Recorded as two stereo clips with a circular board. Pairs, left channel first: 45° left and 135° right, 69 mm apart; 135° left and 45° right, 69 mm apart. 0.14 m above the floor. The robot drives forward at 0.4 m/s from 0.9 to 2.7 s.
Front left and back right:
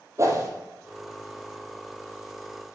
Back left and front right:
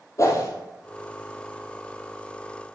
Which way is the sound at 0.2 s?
Straight behind.